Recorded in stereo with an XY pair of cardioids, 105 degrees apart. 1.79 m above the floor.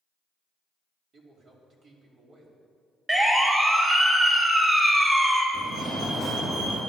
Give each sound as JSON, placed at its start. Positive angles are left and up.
{"t": 1.1, "sound": "a man speaking", "azimuth_deg": -55, "distance_m": 5.0}
{"t": 3.1, "sound": "a siren", "azimuth_deg": -20, "distance_m": 3.5}
{"t": 5.5, "sound": "a fire alarm", "azimuth_deg": -55, "distance_m": 5.5}